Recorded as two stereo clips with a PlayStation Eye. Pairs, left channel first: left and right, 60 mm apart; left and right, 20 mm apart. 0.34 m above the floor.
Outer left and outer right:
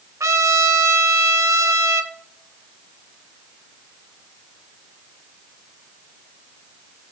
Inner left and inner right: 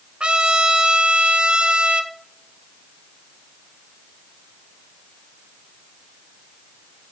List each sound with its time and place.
0.2 s a trumpet: 60° right (ahead or behind), 0.5 m